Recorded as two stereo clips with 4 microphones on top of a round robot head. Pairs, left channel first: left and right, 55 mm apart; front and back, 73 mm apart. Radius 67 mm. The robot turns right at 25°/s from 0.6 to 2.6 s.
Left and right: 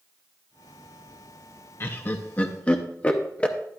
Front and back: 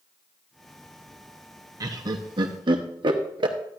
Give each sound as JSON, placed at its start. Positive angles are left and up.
{"t": 1.8, "sound": "laughter", "azimuth_deg": 135, "distance_m": 0.7}